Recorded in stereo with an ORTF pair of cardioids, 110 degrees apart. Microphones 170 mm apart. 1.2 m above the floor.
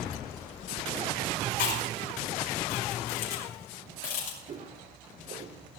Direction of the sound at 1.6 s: 65° left.